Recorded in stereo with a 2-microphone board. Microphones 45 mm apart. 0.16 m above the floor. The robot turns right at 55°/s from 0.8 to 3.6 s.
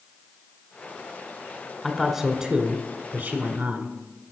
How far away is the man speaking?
About 1.4 m.